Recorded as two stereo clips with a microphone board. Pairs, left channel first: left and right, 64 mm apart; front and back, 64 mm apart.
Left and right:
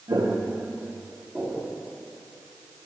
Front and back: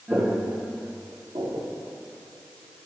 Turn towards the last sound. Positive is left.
turn(degrees=-170)